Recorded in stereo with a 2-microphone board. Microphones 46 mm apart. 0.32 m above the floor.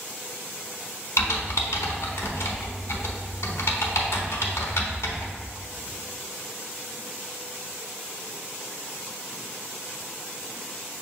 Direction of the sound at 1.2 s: 80° left.